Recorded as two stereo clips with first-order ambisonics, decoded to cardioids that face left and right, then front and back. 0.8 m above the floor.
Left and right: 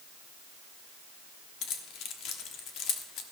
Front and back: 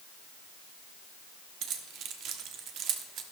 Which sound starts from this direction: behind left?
Keys jangling, at 1.6 s.